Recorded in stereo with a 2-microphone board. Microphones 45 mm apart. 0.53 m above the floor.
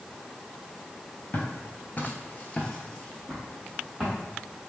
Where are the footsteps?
45° left (ahead or behind), 0.7 m; by 4.2 s centre (ahead or behind), 1.3 m.